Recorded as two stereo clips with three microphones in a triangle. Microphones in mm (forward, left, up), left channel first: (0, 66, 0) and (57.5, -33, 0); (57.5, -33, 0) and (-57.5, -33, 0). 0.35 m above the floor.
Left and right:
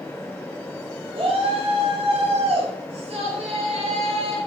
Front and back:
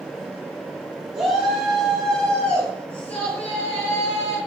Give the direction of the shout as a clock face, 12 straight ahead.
3 o'clock.